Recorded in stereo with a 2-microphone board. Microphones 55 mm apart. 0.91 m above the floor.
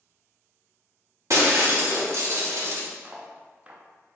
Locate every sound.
1.3 s breaking glass: 65° right (ahead or behind), 1.1 m
3.0 s cutlery clinking: 25° right (ahead or behind), 0.6 m